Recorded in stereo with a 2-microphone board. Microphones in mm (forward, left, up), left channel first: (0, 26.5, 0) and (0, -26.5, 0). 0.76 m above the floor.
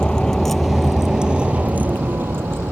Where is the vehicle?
20° left (ahead or behind); by 2.7 s 50° right (ahead or behind).